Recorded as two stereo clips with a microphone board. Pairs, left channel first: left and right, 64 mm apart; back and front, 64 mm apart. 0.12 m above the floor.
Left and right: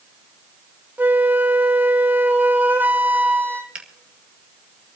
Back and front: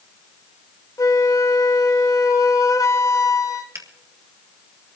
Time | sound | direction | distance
1.0 | a flute | 150° right | 1.2 m
3.8 | a finger snap | 20° right | 2.5 m